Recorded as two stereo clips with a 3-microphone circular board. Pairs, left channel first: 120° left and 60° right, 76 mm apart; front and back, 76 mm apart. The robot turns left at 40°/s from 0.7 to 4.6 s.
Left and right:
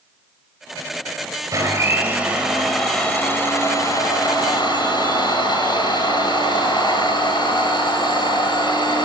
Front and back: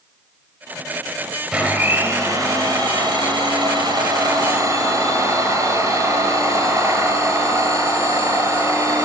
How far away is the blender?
About 5.5 m.